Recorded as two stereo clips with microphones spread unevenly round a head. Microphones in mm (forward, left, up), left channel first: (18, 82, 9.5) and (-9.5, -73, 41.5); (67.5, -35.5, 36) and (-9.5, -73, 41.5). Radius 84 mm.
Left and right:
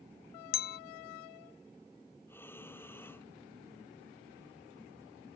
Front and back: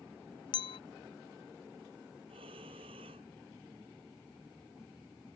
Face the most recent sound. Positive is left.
turn(degrees=160)